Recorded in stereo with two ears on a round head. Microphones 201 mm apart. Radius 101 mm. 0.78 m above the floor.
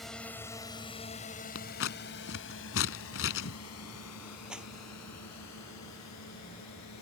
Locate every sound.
0.0 s a drone: centre (ahead or behind); by 7.0 s 85° left
1.6 s scissors: 60° left (ahead or behind)
4.5 s a clap: 5° right (ahead or behind)